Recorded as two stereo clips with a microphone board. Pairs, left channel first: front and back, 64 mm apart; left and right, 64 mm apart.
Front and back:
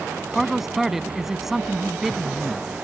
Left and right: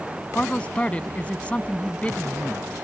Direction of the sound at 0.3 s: 105° left.